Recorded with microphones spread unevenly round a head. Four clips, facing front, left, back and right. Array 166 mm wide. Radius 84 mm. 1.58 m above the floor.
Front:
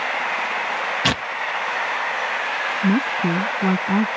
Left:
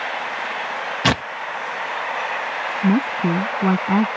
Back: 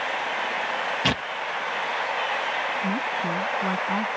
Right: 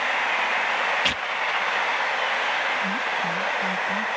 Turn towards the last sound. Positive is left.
turn(degrees=55)